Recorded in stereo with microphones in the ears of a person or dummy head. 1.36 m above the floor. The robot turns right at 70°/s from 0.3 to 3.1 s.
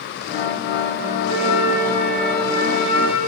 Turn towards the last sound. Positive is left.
turn(degrees=-60)